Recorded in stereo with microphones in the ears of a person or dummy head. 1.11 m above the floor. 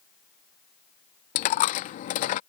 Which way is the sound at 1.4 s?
45° left (ahead or behind).